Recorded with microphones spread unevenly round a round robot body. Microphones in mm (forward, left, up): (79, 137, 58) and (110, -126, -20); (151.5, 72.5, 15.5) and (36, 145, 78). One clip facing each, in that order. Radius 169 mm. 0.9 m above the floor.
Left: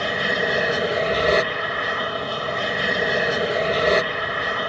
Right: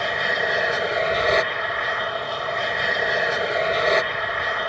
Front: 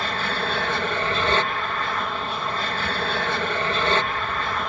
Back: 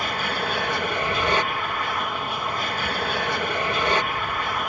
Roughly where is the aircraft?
Ahead left.